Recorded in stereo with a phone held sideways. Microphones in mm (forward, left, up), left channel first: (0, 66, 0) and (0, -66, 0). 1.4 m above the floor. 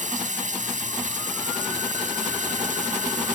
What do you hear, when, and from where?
0.0 s running water: 75° right (ahead or behind)